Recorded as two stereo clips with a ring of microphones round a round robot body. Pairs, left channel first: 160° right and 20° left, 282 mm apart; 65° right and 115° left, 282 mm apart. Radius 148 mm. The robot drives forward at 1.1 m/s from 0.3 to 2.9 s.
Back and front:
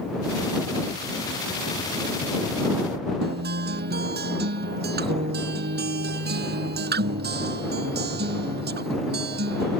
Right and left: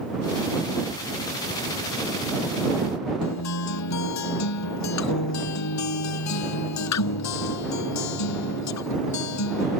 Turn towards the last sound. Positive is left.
turn(degrees=-35)